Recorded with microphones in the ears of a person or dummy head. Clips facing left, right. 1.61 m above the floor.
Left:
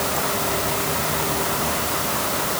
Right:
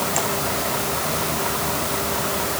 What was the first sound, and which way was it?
Only background noise.